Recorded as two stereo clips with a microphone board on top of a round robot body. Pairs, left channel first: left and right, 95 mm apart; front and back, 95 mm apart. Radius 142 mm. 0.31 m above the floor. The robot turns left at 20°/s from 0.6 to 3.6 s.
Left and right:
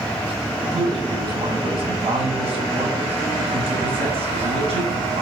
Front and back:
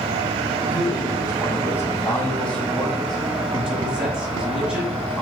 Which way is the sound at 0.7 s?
40° right.